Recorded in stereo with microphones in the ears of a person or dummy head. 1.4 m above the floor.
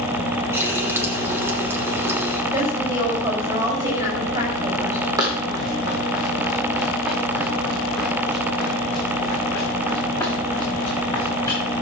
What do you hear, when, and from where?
0.5 s a running tap: 15° right (ahead or behind), 3 m
2.5 s a woman speaking: 15° right (ahead or behind), 6 m
5.2 s running footsteps: 20° right (ahead or behind), 3 m; by 11.6 s 20° left (ahead or behind), 6 m